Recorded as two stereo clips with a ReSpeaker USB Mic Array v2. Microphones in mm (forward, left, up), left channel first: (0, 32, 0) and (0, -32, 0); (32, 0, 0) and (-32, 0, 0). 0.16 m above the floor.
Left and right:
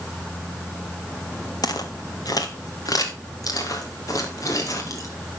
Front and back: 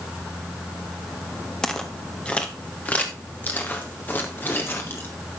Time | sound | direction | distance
1.6 | footsteps | 80° left | 1.7 m